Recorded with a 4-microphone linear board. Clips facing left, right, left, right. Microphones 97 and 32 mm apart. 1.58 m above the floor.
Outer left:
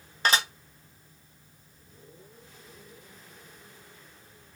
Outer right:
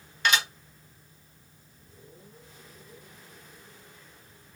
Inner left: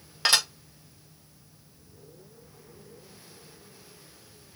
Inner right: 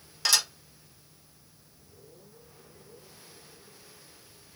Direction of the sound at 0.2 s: 35° left (ahead or behind).